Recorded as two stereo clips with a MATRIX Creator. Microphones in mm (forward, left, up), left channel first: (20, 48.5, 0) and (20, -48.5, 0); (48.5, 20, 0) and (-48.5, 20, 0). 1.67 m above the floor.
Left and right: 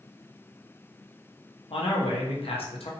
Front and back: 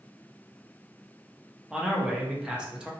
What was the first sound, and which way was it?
A man speaking, 100° left.